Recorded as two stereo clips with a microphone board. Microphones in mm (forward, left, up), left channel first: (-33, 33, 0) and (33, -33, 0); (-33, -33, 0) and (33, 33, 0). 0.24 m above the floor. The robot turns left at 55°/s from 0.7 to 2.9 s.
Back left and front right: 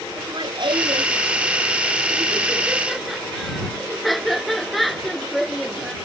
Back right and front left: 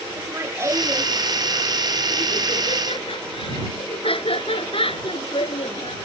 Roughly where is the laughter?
Ahead.